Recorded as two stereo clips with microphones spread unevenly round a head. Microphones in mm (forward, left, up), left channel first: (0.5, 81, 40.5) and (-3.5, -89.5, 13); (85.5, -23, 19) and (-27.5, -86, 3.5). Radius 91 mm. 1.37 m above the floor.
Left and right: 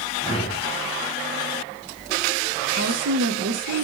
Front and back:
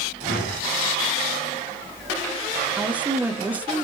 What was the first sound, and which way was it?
A whoosh, 30° left.